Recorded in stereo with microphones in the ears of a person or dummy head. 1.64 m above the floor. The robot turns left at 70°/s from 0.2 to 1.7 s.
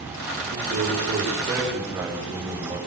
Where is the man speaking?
85° right, 6.5 m; by 2.8 s 165° right, 6.5 m.